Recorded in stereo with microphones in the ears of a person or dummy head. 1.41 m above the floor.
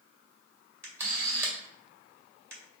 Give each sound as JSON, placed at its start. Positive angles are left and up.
{"t": 0.8, "sound": "a camera shutter", "side_deg": -10, "distance_m": 2.0}